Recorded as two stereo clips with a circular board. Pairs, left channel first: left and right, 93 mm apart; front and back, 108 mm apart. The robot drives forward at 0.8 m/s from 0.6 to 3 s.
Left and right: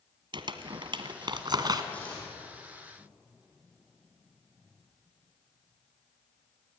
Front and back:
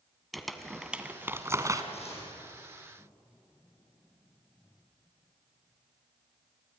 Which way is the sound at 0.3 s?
90° right.